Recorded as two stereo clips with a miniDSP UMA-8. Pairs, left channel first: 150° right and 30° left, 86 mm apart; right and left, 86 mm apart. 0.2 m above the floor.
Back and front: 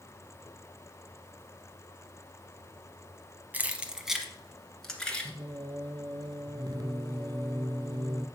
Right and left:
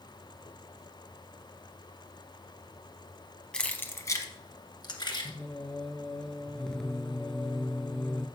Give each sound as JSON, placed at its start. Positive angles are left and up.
{"t": 3.5, "sound": "keys jangling", "azimuth_deg": -20, "distance_m": 0.7}
{"t": 5.2, "sound": "singing", "azimuth_deg": -5, "distance_m": 0.7}